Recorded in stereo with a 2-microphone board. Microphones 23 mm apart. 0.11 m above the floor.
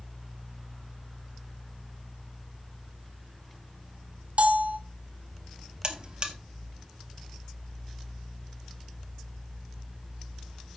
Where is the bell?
70° right (ahead or behind), 1.2 m.